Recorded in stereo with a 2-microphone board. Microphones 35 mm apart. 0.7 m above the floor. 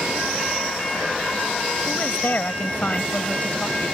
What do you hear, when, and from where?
1.9 s a woman speaking: 60° left (ahead or behind); by 4.0 s 30° left (ahead or behind)